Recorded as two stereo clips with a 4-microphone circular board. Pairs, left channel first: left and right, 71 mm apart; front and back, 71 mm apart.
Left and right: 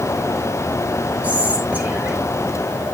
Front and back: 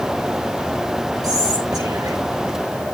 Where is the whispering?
160° right, 5.5 m.